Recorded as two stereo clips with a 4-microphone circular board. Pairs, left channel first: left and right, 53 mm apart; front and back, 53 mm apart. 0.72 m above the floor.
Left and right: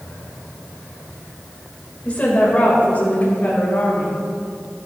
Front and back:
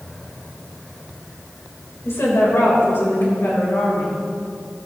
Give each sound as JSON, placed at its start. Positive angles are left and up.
{"t": 2.0, "sound": "a woman speaking", "azimuth_deg": 30, "distance_m": 3.5}